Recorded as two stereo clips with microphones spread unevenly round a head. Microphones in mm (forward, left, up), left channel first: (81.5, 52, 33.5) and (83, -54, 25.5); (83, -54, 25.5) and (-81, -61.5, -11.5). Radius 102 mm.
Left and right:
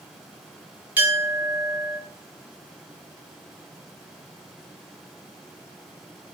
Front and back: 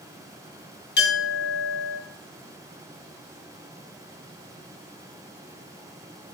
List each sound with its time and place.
1.0 s a clink: 15° right, 0.8 m